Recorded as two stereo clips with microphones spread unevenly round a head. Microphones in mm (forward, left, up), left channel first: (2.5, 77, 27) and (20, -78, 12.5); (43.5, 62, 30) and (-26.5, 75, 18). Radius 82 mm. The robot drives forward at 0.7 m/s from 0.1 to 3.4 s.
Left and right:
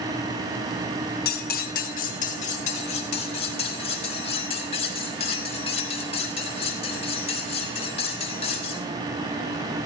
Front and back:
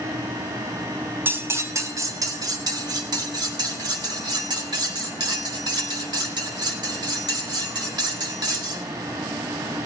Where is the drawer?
I don't hear a drawer.